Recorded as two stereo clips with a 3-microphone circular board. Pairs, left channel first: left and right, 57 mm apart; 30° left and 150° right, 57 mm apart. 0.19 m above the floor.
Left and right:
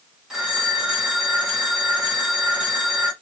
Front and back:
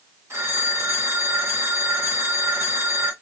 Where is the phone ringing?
170° right, 1.4 m.